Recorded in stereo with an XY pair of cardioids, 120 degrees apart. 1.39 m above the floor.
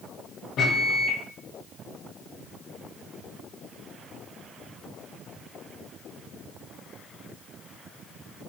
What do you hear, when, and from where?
0.6 s a microwave: 60° left, 1.1 m